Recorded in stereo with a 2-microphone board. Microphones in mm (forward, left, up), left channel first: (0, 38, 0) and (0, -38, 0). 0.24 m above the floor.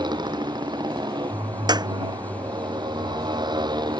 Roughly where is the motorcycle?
Right.